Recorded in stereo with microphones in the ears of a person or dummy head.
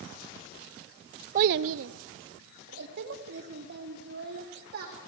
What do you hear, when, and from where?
1.4 s a child speaking: 45° right (ahead or behind), 0.6 m; by 5.0 s 55° right (ahead or behind), 5 m